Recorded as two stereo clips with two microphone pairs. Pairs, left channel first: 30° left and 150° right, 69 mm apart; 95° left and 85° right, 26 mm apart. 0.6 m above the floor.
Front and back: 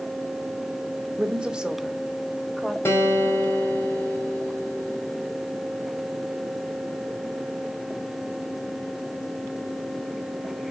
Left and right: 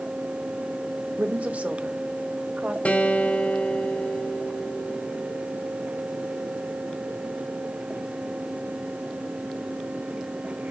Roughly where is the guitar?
Left.